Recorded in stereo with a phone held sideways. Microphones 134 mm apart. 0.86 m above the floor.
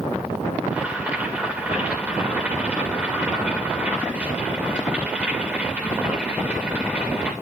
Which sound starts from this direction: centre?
Boiling, at 0.7 s.